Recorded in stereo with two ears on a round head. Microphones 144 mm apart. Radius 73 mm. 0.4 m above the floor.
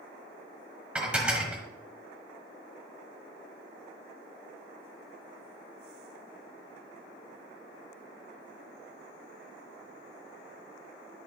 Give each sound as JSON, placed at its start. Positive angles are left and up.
{"t": 0.9, "sound": "dishes clattering", "side_deg": -5, "distance_m": 1.3}